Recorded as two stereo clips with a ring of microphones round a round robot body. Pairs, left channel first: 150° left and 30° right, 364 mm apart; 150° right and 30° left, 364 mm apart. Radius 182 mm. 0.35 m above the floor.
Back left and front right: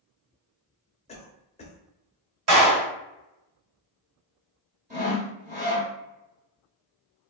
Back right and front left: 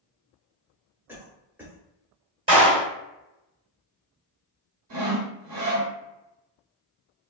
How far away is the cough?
About 0.9 m.